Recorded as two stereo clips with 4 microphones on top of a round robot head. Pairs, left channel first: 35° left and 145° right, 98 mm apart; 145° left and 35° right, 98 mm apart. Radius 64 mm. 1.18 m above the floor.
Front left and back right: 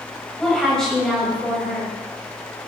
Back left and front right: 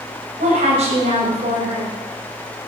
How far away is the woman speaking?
About 6.5 m.